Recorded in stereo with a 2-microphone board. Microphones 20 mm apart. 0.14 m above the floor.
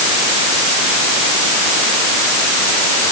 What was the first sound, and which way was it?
Only background noise.